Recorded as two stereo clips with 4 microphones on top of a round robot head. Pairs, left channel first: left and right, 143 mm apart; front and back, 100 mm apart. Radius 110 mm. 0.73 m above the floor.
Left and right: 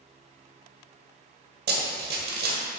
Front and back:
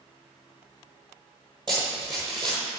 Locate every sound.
1.7 s running footsteps: 115° right, 1.2 m